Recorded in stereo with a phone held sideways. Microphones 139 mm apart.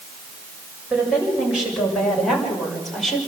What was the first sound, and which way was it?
A woman speaking, 5° right (ahead or behind).